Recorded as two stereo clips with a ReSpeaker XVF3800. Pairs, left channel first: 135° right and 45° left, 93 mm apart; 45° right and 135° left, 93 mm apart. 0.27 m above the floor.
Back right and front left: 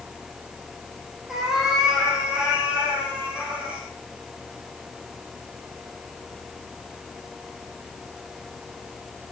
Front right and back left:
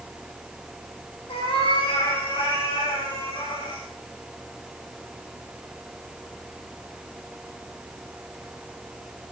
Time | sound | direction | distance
1.3 | a cat meowing | 40° right | 6 m